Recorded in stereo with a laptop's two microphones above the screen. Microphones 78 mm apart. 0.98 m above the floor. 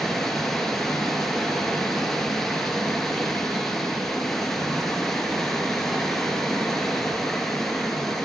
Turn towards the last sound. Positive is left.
turn(degrees=0)  # may be behind; listen again after turning